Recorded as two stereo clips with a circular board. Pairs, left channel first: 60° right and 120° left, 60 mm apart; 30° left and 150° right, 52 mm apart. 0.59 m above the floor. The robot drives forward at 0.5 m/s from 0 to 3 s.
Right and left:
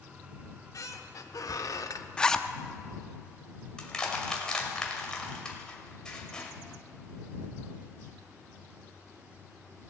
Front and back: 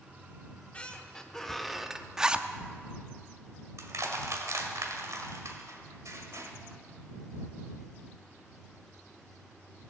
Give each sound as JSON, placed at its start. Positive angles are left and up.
{"t": 0.4, "sound": "a squeak", "azimuth_deg": -30, "distance_m": 1.2}
{"t": 2.2, "sound": "a zipper", "azimuth_deg": -95, "distance_m": 0.5}
{"t": 3.8, "sound": "crushing", "azimuth_deg": -135, "distance_m": 1.8}